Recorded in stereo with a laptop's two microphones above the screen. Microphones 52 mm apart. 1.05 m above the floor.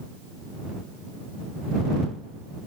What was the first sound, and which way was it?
Only background noise.